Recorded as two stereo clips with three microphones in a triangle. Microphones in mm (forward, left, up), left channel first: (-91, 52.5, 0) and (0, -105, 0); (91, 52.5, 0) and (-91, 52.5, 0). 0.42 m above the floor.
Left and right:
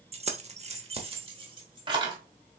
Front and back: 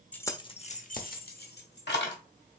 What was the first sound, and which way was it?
Keys jangling, 75° right.